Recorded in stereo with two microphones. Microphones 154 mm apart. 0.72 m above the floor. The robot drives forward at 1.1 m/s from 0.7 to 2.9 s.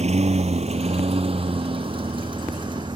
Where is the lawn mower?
45° right (ahead or behind); by 3.0 s 30° right (ahead or behind).